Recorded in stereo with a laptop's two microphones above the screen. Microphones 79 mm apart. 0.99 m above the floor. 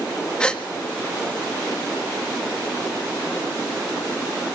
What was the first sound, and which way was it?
A gasp, 10° left (ahead or behind).